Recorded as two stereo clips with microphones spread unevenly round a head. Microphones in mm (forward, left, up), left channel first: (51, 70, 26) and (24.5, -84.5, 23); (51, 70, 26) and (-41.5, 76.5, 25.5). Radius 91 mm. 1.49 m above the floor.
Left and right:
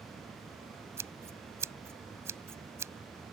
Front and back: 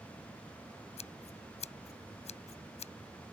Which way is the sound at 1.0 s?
25° right.